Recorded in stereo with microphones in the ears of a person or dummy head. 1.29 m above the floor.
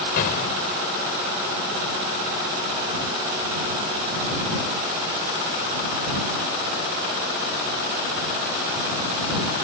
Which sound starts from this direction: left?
An explosion, at 0.2 s.